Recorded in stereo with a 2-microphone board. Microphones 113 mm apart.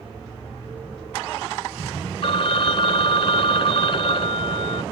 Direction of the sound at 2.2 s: 55° left (ahead or behind).